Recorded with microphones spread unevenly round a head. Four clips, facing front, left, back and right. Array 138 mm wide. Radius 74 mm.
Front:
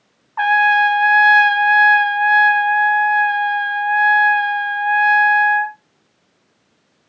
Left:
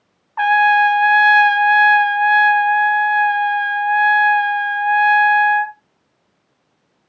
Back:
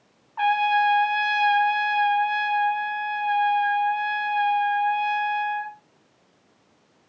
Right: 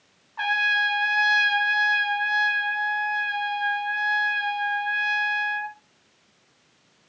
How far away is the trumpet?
About 0.8 m.